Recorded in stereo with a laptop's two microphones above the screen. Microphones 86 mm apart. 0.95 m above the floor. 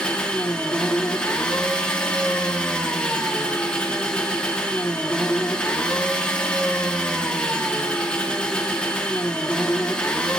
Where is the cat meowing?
No cat meowing in this recording.